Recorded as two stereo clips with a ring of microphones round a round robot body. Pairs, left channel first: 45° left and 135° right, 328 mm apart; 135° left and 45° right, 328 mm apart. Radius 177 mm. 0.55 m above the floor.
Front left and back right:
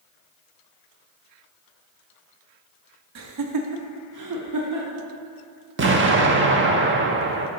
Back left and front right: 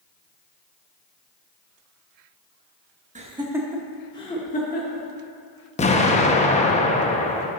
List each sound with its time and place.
3.1 s laughter: 110° right, 1.0 m; by 5.1 s 170° right, 1.4 m
5.8 s an explosion: 165° right, 0.8 m